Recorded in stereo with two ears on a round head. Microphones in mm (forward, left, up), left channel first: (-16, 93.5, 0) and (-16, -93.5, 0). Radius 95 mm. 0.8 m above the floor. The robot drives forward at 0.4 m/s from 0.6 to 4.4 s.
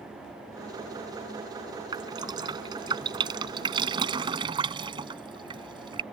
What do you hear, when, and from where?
1.9 s dripping: 20° right (ahead or behind)